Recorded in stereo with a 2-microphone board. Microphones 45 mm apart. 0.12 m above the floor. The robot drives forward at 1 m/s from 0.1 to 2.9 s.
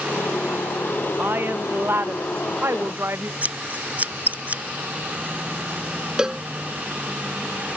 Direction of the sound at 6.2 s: 15° right (ahead or behind).